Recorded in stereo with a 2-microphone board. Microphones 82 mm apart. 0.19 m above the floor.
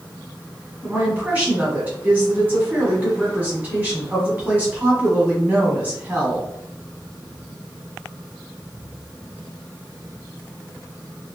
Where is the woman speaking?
20° right (ahead or behind), 1.4 m.